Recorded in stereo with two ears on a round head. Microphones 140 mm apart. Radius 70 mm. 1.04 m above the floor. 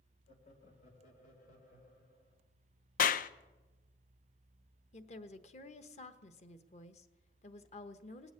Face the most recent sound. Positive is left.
turn(degrees=45)  # may be behind; listen again after turning